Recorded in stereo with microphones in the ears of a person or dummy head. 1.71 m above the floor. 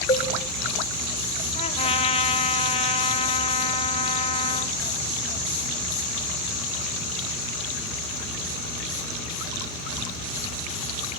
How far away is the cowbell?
About 0.8 m.